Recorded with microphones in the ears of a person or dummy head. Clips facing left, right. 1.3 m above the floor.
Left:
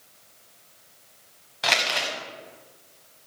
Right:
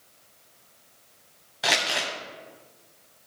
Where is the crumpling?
5° right (ahead or behind), 1.7 m.